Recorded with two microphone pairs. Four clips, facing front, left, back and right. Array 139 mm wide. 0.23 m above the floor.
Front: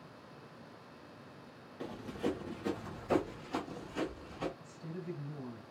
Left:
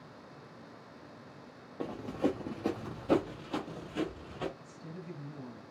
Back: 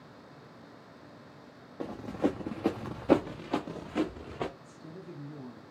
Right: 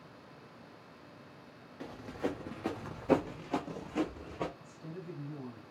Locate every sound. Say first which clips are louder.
1.8 s running footsteps: left 5 dB, back 6 dB; 130° left, 1.3 m; by 4.5 s 150° right, 2.5 m
4.6 s a woman speaking: right 1 dB, front 2 dB; 40° right, 1.8 m